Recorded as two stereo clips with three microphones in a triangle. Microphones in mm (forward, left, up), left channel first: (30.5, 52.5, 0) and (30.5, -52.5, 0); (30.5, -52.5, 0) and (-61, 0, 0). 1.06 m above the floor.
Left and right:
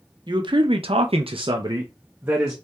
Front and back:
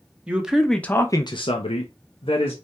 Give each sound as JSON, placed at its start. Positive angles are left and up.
{"t": 0.3, "sound": "a man speaking", "azimuth_deg": -135, "distance_m": 1.1}